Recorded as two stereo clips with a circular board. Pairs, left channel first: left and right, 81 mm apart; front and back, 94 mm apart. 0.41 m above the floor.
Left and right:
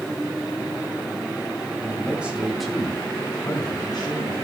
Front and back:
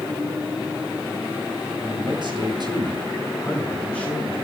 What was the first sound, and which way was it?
A man speaking, 155° right.